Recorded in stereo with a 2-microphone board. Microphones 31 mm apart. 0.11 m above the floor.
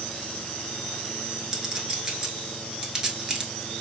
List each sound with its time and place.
1.5 s a clink: 15° right (ahead or behind), 0.9 m